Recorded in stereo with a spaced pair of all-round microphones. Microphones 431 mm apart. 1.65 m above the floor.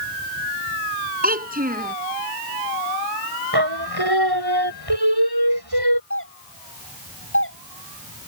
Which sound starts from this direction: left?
A doorbell, at 6.1 s.